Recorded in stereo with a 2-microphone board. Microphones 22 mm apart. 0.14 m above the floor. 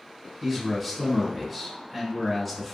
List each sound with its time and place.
0.4 s a man speaking: centre (ahead or behind), 1.8 m